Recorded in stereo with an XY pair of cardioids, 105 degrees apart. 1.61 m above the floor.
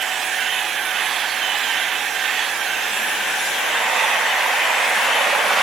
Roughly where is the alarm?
I don't hear an alarm.